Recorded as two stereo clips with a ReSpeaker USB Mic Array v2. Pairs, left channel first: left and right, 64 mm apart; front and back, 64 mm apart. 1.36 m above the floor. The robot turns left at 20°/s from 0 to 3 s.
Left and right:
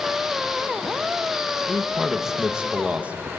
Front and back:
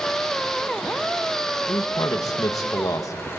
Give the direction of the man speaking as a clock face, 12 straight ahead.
12 o'clock.